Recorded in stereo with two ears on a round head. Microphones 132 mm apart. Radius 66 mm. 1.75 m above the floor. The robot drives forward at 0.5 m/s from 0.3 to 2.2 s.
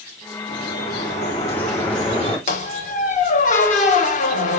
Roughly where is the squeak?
Left.